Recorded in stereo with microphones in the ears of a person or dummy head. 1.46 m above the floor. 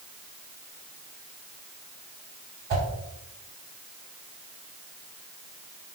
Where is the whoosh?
35° right (ahead or behind), 1.1 m.